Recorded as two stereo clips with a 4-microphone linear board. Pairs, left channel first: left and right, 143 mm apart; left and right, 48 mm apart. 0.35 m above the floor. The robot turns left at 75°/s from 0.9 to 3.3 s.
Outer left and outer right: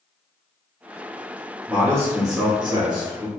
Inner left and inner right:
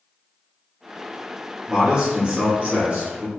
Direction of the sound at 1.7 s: 15° right.